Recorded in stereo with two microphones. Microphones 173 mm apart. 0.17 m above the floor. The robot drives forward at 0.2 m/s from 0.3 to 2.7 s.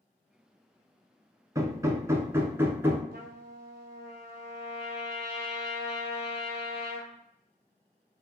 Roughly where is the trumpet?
Right.